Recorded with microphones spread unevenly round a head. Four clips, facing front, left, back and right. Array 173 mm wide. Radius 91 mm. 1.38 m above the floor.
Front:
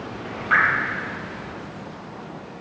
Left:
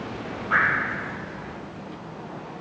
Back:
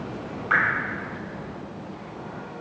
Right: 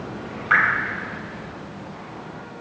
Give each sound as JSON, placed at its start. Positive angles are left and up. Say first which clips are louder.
{"t": 0.5, "sound": "dripping", "louder": "right 3 dB, front 3 dB", "azimuth_deg": -85, "distance_m": 4.0}